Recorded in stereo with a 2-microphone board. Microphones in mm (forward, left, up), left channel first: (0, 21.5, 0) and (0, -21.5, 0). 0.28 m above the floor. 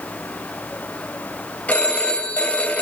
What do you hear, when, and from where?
1.7 s a phone ringing: 35° left (ahead or behind), 1.0 m